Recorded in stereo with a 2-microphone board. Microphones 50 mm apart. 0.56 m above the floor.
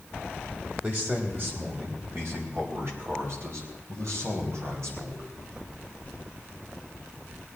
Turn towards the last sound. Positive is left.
turn(degrees=-70)  # may be behind; listen again after turning